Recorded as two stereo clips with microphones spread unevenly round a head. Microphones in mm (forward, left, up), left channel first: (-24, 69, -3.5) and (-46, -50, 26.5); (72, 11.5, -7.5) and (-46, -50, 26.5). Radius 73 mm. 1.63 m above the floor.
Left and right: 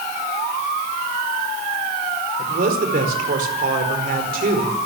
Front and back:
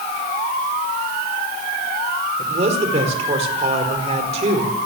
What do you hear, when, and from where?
2.4 s a man speaking: 110° right, 5 m